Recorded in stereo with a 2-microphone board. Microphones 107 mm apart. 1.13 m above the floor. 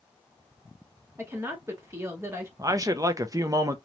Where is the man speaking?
35° right (ahead or behind), 0.5 m.